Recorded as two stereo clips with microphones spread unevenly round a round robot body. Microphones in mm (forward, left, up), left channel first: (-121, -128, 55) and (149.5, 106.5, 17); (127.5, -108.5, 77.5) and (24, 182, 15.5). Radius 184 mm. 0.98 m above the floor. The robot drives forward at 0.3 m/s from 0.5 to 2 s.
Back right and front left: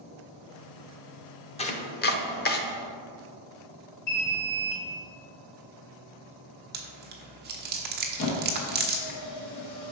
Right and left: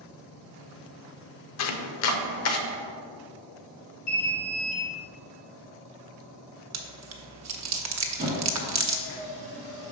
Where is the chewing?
100° left, 0.9 m.